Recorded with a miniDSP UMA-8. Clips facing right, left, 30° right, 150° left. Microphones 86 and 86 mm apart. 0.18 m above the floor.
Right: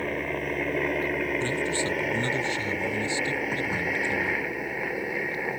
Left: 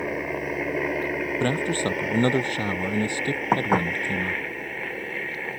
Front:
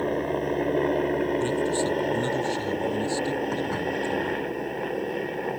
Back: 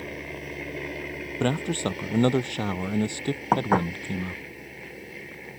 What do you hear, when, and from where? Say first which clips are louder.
0.0 s a helicopter: left 1 dB, front 11 dB; 10° left; by 5.6 s 15° right
1.4 s a man speaking: left 3 dB, front 2 dB; 125° left
3.5 s dishes clattering: left 8 dB, back 5 dB; 120° left